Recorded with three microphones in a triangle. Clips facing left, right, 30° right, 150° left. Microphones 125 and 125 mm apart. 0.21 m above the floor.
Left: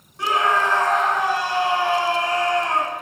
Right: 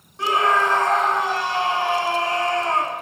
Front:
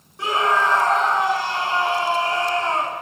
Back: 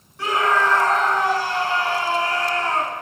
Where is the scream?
70° right, 1.6 m.